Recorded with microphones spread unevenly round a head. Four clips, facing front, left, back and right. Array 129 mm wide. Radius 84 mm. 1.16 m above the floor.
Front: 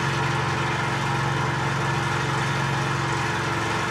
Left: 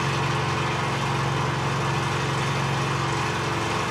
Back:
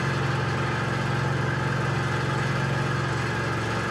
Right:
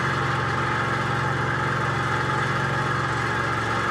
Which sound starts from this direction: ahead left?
An engine running, at 0.0 s.